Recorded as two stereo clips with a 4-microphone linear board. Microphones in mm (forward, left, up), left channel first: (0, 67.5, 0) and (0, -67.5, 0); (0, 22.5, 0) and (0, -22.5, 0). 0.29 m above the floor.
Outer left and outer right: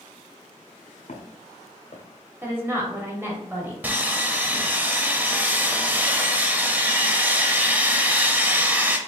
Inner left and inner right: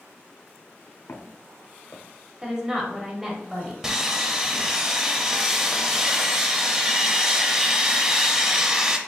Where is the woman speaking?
15° right (ahead or behind), 1.2 m.